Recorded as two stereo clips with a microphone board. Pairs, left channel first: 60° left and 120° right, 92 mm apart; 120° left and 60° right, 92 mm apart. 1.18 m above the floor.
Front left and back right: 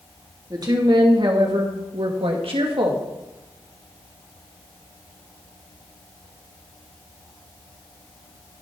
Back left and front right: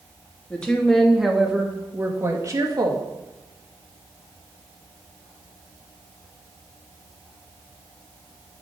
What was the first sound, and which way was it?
A woman speaking, 165° right.